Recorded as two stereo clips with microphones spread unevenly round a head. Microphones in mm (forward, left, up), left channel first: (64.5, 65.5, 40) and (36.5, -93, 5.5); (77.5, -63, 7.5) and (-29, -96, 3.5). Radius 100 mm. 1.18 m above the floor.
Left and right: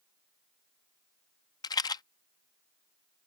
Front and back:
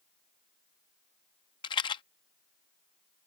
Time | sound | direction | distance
1.6 | a rattle | 40° left | ?